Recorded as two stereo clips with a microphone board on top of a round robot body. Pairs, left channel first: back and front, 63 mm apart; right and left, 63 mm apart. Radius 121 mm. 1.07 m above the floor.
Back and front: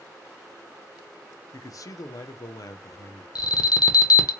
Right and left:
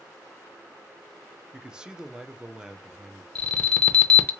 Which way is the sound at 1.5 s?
165° left.